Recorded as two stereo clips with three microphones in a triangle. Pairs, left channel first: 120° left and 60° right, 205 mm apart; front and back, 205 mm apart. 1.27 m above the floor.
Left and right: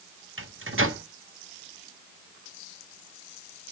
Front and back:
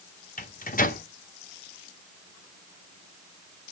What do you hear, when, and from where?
0.4 s a microwave: 50° right, 1.0 m